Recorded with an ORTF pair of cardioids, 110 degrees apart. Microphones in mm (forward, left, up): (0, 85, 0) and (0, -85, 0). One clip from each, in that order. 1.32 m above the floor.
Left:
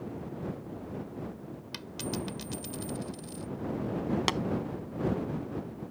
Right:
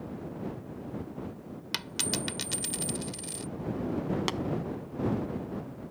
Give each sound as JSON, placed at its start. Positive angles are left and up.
{"t": 1.7, "sound": "a dropped coin", "azimuth_deg": -60}
{"t": 4.3, "sound": "tapping", "azimuth_deg": 20}